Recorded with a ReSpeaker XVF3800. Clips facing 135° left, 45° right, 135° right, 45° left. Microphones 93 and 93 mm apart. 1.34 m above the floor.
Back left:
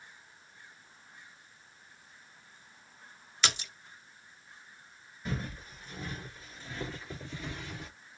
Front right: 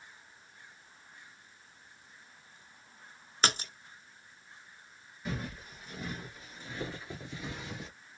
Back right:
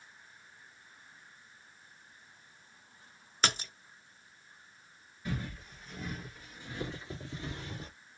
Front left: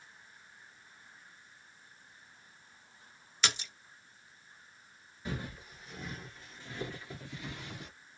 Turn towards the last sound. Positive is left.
turn(degrees=-115)